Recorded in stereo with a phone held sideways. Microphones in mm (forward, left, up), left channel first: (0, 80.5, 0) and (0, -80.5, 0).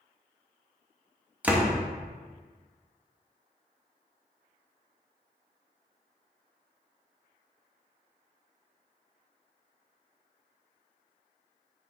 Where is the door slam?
10° right (ahead or behind), 0.6 m.